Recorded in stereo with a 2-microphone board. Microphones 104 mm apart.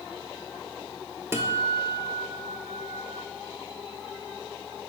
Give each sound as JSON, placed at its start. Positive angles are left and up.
{"t": 1.3, "sound": "a guitar", "side_deg": -25, "distance_m": 0.6}